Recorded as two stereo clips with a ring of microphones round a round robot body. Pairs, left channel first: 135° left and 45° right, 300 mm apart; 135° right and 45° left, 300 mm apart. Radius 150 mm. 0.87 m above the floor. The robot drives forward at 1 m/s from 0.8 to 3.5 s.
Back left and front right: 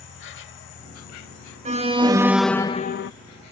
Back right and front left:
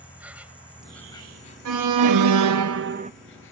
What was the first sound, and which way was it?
An insect, 125° left.